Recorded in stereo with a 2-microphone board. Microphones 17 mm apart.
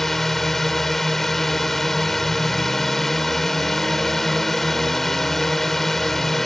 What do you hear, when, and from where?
0.0 s a drone: 15° left (ahead or behind)